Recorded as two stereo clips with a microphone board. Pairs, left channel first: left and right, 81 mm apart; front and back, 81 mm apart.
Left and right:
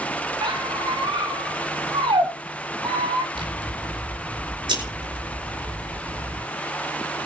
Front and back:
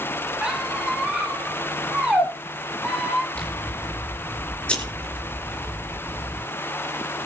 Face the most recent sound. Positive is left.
turn(degrees=-75)